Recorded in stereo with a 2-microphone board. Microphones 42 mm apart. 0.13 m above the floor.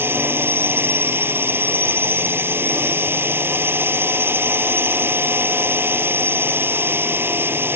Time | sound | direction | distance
0.0 | a drone | 60° right (ahead or behind) | ?